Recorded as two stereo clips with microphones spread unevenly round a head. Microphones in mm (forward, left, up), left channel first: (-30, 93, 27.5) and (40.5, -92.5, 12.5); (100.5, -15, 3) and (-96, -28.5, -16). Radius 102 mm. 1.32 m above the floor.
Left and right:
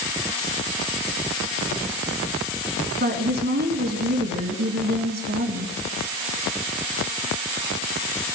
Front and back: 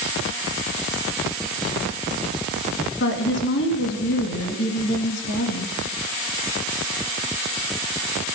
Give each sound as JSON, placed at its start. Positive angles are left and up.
{"t": 3.0, "sound": "a woman speaking", "azimuth_deg": -25, "distance_m": 2.0}